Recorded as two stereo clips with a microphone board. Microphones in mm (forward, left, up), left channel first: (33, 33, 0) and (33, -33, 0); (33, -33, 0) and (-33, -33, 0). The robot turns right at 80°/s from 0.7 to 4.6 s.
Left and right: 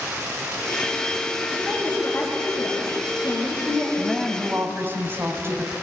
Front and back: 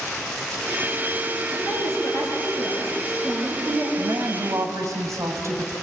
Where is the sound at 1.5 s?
15° right, 9.5 m; by 3.9 s 175° left, 9.5 m.